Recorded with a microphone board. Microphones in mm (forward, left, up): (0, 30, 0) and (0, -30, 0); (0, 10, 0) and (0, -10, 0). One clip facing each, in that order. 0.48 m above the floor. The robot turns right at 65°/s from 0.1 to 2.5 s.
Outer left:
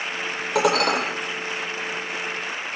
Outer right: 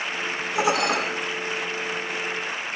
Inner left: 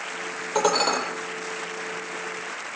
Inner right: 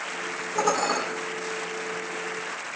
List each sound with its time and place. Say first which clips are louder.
0.6 s dishes clattering: outer left 3 dB, inner left 3 dB; 75° left (ahead or behind), 9.5 m; by 1.0 s 45° left (ahead or behind), 9.5 m